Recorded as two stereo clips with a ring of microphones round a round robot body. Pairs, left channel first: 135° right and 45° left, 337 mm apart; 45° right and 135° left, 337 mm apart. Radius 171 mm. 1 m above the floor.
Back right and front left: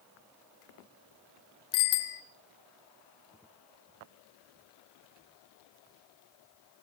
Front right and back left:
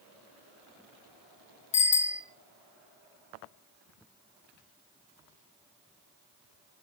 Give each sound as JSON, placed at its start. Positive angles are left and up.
{"t": 1.7, "sound": "a bicycle bell", "azimuth_deg": -115, "distance_m": 3.0}